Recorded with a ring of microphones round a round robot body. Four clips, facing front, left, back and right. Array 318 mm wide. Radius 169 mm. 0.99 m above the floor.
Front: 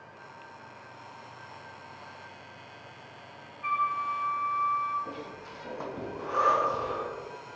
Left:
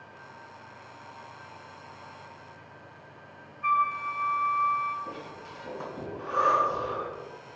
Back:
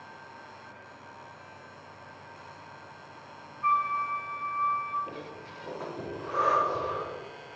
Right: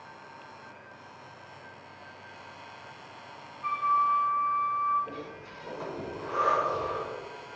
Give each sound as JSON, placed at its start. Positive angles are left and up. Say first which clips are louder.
{"t": 3.6, "sound": "a flute", "louder": "right 1 dB, back 2 dB", "azimuth_deg": 60, "distance_m": 1.9}
{"t": 5.0, "sound": "breathing", "louder": "even, front 1 dB", "azimuth_deg": 15, "distance_m": 4.0}